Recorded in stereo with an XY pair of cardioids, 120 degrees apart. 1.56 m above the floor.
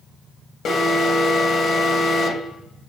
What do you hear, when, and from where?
0.7 s an alarm: 45° left, 2.5 m